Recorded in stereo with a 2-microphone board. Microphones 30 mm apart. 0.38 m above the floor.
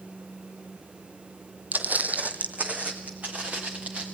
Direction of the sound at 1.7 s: 70° right (ahead or behind).